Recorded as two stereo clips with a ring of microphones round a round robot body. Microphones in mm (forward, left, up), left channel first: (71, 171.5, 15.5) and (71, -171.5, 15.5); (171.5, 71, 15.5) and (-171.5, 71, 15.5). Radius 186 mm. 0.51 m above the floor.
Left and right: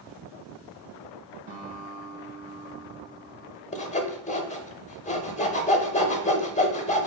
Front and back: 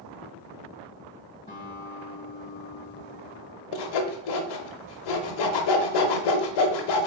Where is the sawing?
20° left, 0.7 m.